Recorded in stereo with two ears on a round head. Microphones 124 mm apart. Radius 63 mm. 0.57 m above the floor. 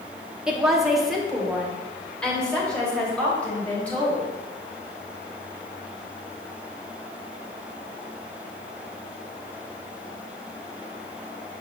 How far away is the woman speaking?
About 1.1 m.